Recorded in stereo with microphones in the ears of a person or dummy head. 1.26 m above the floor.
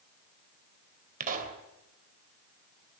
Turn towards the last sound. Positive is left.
turn(degrees=-45)  # may be behind; listen again after turning